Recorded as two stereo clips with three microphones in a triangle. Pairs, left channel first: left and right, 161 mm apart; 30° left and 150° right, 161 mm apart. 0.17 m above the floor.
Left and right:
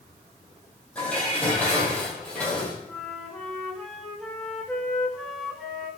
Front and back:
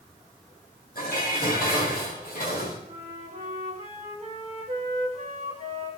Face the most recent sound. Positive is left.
turn(degrees=175)